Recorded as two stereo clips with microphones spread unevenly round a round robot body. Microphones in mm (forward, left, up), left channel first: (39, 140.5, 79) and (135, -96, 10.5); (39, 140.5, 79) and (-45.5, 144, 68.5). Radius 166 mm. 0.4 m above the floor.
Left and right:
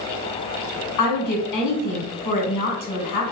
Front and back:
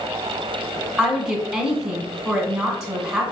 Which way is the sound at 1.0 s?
95° left.